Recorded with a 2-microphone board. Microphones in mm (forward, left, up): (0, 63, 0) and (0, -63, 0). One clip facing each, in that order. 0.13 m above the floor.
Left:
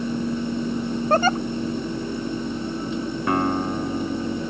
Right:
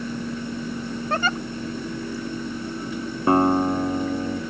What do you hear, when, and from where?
1.1 s a giggle: 40° left (ahead or behind)
3.3 s a guitar: 30° right (ahead or behind)